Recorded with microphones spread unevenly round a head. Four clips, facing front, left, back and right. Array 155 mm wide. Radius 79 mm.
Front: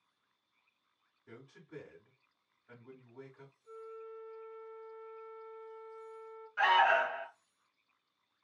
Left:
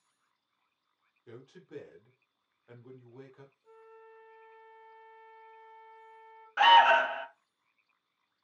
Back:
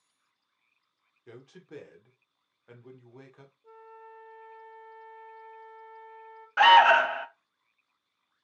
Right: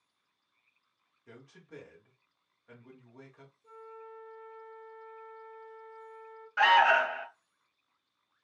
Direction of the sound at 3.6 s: 175° left.